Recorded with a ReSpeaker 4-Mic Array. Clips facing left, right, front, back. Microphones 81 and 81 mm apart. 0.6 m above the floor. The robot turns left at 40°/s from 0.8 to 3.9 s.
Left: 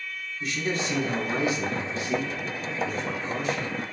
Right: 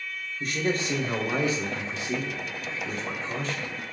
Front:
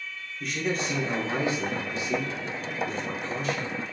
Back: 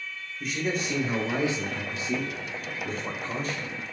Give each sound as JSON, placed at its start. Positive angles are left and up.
{"t": 0.4, "sound": "a man speaking", "azimuth_deg": -95, "distance_m": 1.2}